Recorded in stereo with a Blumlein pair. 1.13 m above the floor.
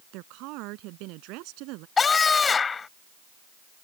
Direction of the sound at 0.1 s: 40° right.